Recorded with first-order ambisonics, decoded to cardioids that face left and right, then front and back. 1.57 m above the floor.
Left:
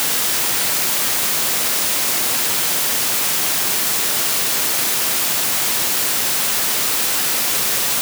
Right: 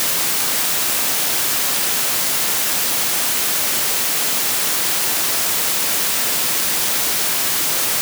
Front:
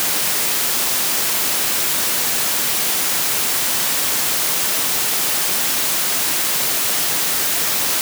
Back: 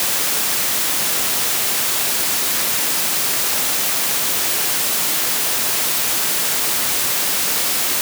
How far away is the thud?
I don't hear a thud.